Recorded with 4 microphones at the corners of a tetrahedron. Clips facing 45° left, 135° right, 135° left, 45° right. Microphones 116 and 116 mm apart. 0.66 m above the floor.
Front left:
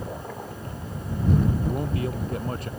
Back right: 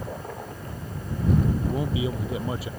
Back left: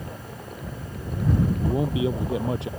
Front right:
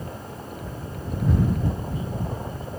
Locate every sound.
1.6 s a man speaking: 140° left